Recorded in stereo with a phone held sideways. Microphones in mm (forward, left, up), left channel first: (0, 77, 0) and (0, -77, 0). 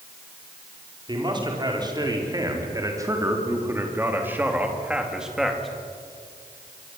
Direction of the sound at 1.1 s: 30° right (ahead or behind).